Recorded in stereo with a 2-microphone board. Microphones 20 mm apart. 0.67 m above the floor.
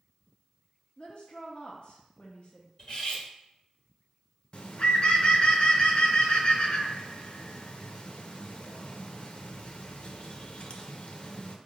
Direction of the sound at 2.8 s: 40° left (ahead or behind).